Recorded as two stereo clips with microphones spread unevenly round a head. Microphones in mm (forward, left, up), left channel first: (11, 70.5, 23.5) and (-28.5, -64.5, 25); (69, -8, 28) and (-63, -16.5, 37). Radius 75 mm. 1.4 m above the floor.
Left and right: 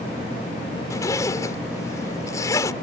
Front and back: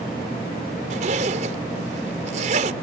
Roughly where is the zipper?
Behind left.